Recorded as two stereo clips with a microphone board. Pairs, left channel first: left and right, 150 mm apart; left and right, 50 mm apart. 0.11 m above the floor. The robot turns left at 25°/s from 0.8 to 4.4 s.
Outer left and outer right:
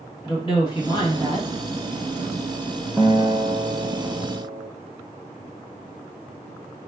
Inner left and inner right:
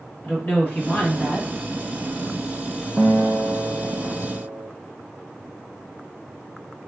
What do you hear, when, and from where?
0.2 s a woman speaking: 35° left (ahead or behind), 2.5 m; by 1.5 s 20° left (ahead or behind), 2.5 m
3.0 s a guitar: 5° right, 0.7 m; by 4.7 s 45° right, 0.7 m